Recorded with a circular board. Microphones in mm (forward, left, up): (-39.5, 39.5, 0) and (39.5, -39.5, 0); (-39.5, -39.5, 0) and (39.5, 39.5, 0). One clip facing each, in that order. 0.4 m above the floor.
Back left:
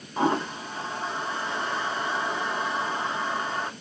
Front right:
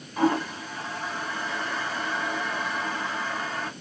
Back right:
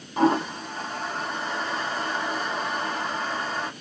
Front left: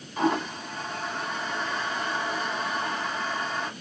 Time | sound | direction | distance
0.2 | a toilet flushing | 170° right | 1.0 m